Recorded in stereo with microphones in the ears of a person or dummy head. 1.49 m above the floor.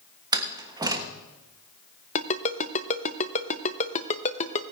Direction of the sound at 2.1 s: 40° left (ahead or behind).